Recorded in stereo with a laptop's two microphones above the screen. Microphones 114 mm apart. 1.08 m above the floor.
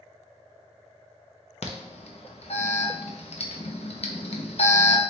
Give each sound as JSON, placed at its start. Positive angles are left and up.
{"t": 1.6, "sound": "an alarm", "side_deg": 60, "distance_m": 0.6}